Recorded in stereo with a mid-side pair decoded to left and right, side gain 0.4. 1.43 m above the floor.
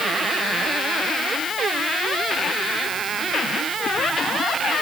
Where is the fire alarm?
No fire alarm in this recording.